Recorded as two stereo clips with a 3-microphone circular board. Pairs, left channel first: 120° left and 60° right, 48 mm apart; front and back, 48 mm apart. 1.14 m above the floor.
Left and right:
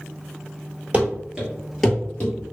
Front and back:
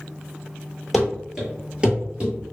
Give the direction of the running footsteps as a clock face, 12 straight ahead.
3 o'clock.